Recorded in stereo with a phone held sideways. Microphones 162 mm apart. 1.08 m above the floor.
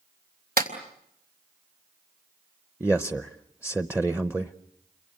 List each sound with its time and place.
0.6 s a clap: 70° right (ahead or behind), 3 m
2.8 s a man speaking: 10° right (ahead or behind), 0.6 m